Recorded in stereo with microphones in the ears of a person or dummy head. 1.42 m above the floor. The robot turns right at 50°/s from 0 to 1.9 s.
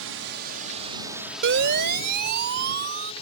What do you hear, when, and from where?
0.0 s a drone: 70° right (ahead or behind); by 3.2 s 35° left (ahead or behind)
1.4 s a siren: 75° right (ahead or behind); by 3.1 s 60° right (ahead or behind)